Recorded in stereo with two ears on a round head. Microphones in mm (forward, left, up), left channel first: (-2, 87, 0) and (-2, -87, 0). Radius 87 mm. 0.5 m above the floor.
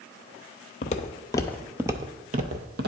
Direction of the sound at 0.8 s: 40° left (ahead or behind).